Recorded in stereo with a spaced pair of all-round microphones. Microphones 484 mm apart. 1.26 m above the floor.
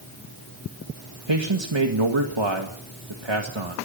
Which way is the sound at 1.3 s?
65° right (ahead or behind).